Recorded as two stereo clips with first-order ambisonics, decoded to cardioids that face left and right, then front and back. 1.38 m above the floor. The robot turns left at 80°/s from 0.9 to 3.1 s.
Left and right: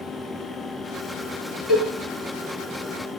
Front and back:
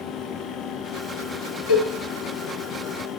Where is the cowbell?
10° right, 1.0 m; by 1.9 s 25° right, 1.0 m.